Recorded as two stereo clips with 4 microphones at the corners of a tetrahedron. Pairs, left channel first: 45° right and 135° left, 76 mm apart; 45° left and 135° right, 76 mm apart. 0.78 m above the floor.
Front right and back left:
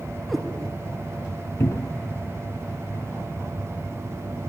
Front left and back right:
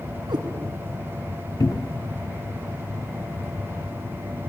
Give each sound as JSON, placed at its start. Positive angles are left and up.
{"t": 0.3, "sound": "a cat meowing", "azimuth_deg": -130, "distance_m": 2.0}
{"t": 1.6, "sound": "a cupboard door", "azimuth_deg": 10, "distance_m": 0.6}